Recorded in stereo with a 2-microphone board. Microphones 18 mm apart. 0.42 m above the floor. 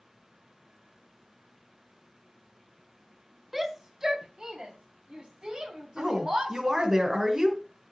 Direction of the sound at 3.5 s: 20° right (ahead or behind).